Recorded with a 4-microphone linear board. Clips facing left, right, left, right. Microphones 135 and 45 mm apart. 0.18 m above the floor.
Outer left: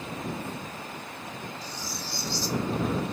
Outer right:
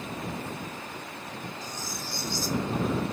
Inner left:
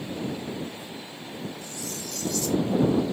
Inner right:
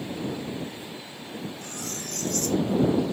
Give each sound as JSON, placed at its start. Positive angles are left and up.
{"t": 1.6, "sound": "cutlery clinking", "side_deg": -45}